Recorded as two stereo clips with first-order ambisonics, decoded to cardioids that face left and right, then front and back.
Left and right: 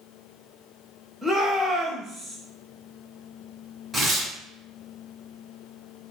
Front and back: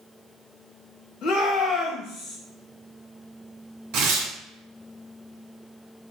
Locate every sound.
1.2 s a shout: 10° left, 1.3 m
3.9 s tearing paper: 175° right, 1.4 m